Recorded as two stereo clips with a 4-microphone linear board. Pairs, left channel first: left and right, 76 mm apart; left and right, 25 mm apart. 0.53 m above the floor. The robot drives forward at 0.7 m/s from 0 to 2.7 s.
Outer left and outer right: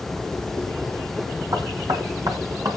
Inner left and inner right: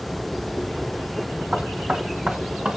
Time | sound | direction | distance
1.5 | knocking | 60° right (ahead or behind) | 3 m